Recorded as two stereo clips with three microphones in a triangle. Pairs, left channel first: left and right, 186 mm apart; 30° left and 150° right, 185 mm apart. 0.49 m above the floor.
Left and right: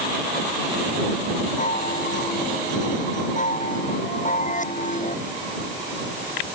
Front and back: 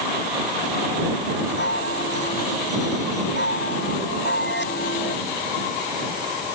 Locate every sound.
1.6 s a chime: 45° left